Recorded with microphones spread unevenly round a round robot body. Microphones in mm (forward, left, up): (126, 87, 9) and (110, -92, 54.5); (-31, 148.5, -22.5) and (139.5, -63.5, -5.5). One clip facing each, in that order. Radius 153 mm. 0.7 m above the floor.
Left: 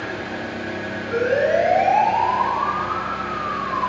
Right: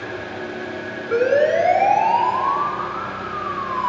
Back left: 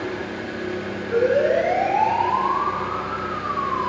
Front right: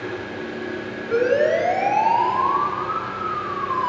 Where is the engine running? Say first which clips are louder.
Left 1 dB, back left 1 dB; 105° left, 6.5 m.